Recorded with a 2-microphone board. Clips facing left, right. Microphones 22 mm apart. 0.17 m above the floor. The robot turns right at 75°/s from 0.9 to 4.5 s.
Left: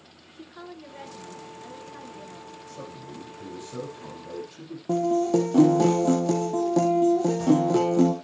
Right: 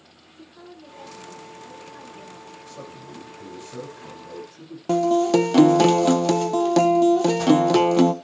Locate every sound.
0.3 s a woman speaking: 95° left, 2.5 m; by 2.6 s 140° right, 2.5 m
2.7 s a man speaking: 65° right, 7 m; by 4.8 s 70° left, 7 m
4.9 s a guitar: 80° right, 1.0 m